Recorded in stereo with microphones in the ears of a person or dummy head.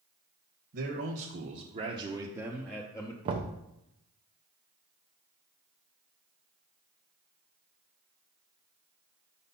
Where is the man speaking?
60° right (ahead or behind), 1.4 m; by 3.1 s 25° left (ahead or behind), 0.8 m.